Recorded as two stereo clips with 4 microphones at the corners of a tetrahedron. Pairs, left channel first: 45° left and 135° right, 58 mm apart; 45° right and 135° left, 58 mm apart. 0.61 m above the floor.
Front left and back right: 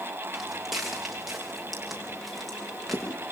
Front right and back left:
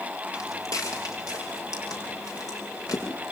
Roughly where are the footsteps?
Ahead right.